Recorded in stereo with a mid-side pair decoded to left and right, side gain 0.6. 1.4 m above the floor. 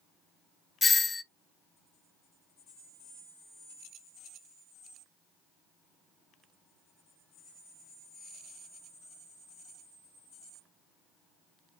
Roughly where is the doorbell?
Ahead left.